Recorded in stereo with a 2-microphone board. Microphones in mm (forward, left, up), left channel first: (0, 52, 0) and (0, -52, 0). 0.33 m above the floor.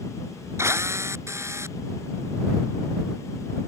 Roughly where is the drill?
Right.